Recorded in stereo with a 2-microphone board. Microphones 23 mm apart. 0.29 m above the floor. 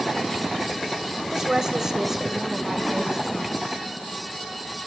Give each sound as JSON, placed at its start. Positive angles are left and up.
{"t": 1.3, "sound": "a woman speaking", "side_deg": -25, "distance_m": 1.3}